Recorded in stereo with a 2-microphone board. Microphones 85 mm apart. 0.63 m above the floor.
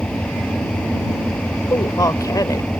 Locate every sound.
0.0 s an engine running: 10° left (ahead or behind)
1.7 s a woman speaking: 45° left (ahead or behind)